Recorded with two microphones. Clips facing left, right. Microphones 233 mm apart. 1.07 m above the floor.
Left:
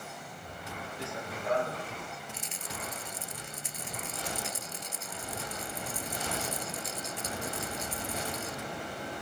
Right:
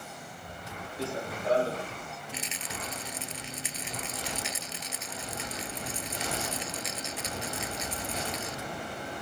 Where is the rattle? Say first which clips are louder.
Right 3 dB; 85° right.